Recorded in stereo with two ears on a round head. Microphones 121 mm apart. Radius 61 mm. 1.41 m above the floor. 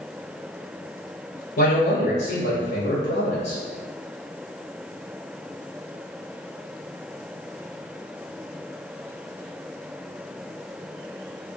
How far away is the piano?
No piano in this recording.